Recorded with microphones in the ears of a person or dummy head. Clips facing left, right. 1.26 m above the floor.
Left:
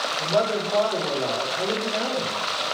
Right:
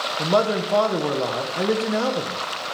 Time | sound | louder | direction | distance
0.2 | a man speaking | right 3 dB | 60° right (ahead or behind) | 0.9 m